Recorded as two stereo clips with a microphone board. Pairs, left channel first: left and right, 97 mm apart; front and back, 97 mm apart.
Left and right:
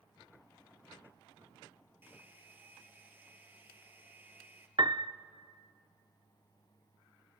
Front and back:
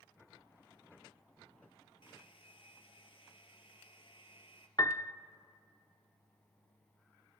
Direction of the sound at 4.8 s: 50° right.